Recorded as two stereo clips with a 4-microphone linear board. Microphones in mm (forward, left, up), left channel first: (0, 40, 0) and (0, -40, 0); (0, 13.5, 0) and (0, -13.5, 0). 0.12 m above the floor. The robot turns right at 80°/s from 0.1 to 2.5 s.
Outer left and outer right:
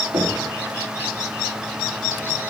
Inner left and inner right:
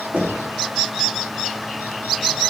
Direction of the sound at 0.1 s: 75° right (ahead or behind).